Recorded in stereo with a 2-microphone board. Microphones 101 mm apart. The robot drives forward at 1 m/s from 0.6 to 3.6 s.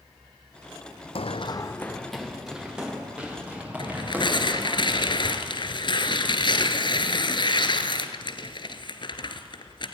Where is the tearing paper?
50° left (ahead or behind), 1.2 m.